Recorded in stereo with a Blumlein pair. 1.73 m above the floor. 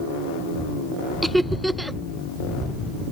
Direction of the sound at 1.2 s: 5° right.